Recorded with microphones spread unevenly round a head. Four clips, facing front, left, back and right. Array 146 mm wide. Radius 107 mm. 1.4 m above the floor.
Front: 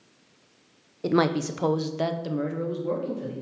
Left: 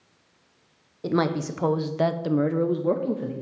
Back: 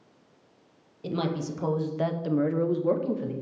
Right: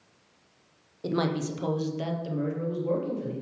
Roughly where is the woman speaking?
Ahead.